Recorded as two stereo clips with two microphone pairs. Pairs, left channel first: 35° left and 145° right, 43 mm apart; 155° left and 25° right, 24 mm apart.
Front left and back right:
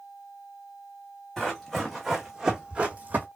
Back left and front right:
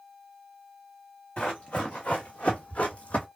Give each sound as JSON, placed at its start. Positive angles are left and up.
{"t": 1.4, "sound": "running footsteps", "azimuth_deg": 110, "distance_m": 1.4}